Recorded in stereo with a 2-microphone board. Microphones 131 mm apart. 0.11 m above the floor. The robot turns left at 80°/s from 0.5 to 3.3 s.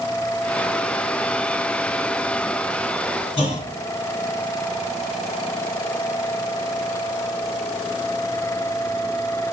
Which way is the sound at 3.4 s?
40° left (ahead or behind).